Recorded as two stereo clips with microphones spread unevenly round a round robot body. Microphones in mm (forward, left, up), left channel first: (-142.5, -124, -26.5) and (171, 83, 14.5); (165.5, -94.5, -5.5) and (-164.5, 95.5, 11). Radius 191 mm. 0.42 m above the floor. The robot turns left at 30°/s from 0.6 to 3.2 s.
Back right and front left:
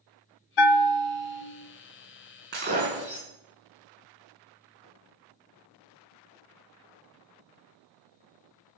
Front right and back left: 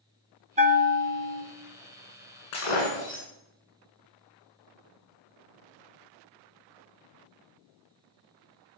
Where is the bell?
135° right, 0.8 m; by 1.4 s 160° right, 0.8 m.